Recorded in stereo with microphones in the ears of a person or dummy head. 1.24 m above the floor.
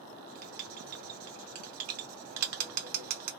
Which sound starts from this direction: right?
Writing, at 0.1 s.